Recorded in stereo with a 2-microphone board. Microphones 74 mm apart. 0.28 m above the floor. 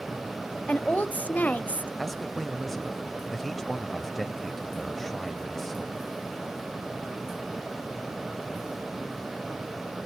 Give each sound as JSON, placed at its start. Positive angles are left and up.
{"t": 0.7, "sound": "a woman speaking", "side_deg": 20, "distance_m": 0.9}
{"t": 2.0, "sound": "a man speaking", "side_deg": 5, "distance_m": 0.9}